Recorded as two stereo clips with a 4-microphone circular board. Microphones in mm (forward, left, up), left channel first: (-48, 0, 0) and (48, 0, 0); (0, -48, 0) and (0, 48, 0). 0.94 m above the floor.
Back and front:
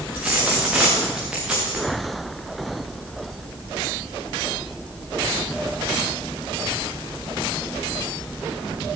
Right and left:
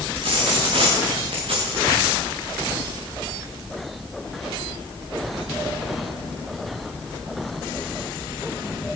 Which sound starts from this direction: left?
A dropped coin, at 0.1 s.